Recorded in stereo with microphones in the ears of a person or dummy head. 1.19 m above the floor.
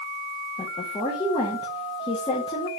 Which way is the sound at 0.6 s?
15° left (ahead or behind).